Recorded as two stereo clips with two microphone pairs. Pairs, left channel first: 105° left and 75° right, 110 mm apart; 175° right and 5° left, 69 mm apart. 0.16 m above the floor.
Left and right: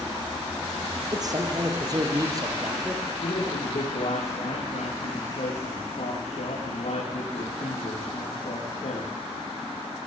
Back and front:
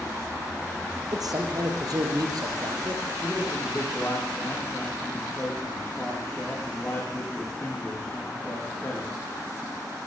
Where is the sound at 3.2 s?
105° left, 7 m.